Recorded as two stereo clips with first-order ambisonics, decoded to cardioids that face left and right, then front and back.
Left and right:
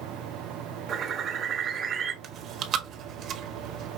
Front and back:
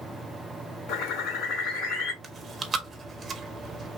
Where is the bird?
30° right, 0.9 m.